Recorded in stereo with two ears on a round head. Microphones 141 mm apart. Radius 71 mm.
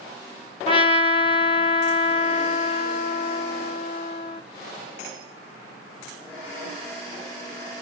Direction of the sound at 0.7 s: 30° left (ahead or behind).